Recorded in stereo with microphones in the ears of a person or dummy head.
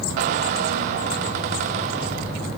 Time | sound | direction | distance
0.2 | a squeak | 45° right (ahead or behind) | 0.6 m